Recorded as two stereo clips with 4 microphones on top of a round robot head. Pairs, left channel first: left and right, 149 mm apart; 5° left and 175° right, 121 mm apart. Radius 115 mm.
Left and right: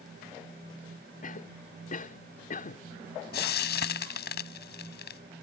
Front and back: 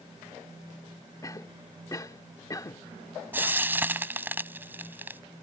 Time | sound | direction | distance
1.2 | a cough | 65° left | ?
3.3 | frying | 110° left | ?